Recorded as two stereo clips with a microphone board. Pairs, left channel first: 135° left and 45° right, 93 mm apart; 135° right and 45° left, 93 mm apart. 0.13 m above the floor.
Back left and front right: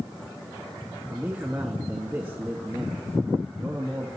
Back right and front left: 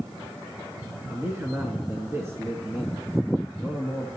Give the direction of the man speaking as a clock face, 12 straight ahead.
12 o'clock.